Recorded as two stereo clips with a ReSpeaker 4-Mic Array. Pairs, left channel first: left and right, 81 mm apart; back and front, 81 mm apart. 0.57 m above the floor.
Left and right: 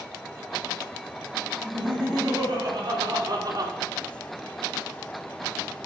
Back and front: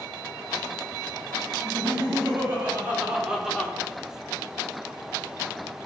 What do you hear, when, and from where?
1.6 s laughter: 55° right, 4 m; by 3.7 s 105° right, 1.5 m